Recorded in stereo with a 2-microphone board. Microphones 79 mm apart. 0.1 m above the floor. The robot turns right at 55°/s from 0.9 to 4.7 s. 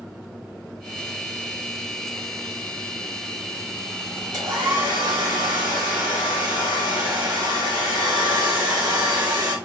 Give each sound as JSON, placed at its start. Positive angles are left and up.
{"t": 4.3, "sound": "a hair dryer", "side_deg": -60, "distance_m": 3.0}